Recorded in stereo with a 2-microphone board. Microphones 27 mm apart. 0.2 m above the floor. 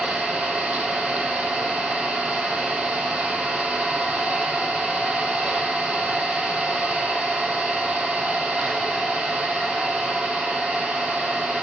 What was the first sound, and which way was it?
An engine running, 75° right (ahead or behind).